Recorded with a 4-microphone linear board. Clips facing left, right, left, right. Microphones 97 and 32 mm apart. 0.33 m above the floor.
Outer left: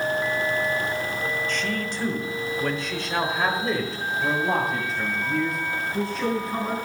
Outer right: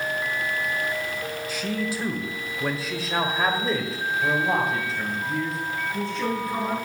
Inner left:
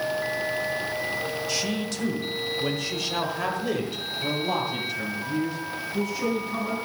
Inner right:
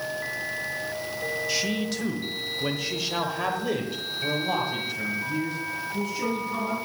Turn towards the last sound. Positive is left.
turn(degrees=0)  # may be behind; listen again after turning